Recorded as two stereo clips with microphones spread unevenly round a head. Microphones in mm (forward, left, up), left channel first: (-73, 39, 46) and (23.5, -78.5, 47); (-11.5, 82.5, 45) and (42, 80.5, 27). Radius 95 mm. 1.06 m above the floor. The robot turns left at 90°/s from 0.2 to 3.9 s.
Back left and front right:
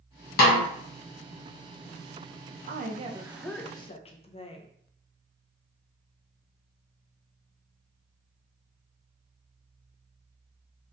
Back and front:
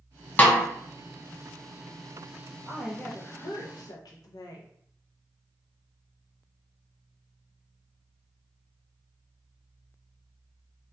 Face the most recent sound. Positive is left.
turn(degrees=180)